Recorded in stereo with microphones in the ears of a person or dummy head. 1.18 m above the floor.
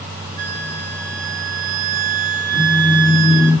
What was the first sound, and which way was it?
A flute, 45° right (ahead or behind).